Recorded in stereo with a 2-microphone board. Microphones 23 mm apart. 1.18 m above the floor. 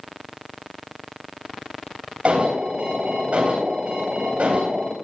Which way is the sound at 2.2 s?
80° right.